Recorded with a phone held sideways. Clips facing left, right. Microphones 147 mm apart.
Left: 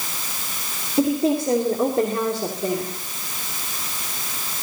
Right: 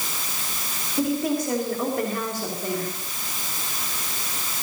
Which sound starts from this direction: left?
A woman speaking, at 1.0 s.